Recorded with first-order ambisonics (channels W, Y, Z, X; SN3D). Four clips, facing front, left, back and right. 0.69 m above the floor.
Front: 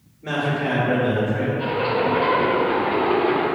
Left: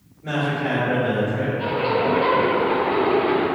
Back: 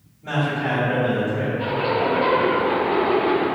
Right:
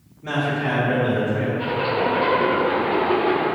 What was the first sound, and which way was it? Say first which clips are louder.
A man speaking: even, even; 40° right.